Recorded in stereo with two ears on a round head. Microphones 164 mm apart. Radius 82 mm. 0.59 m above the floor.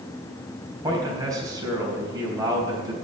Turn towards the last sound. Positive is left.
turn(degrees=-20)  # may be behind; listen again after turning